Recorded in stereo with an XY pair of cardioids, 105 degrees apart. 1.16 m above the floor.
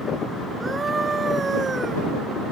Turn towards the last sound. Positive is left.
turn(degrees=-35)